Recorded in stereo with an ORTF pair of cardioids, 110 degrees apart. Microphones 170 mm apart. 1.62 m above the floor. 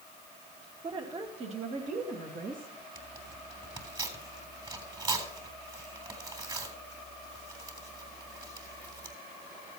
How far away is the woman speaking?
About 2.5 m.